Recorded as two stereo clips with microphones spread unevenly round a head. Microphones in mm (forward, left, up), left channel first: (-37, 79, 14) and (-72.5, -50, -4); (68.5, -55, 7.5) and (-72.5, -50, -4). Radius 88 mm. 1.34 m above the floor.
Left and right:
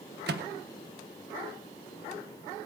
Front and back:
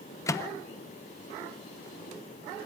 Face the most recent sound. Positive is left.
turn(degrees=-70)